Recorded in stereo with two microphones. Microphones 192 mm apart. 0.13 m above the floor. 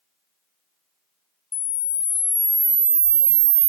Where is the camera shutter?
80° right, 0.7 m.